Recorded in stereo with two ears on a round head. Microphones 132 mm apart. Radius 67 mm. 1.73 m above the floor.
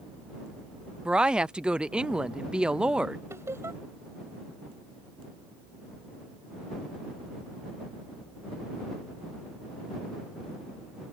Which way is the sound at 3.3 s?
20° right (ahead or behind).